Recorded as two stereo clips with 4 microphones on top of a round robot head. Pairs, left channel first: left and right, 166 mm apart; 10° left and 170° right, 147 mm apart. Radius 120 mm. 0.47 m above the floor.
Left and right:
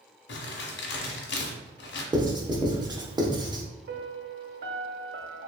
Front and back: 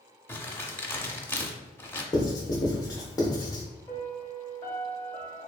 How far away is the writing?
About 0.9 m.